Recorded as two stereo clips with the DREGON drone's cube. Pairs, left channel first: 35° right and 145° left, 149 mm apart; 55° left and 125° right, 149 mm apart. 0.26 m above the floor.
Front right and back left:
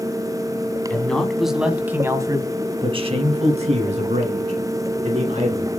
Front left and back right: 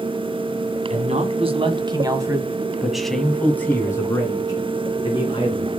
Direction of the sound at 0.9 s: 115° right.